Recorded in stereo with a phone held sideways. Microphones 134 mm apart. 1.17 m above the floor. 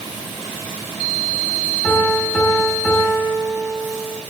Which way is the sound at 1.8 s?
10° left (ahead or behind).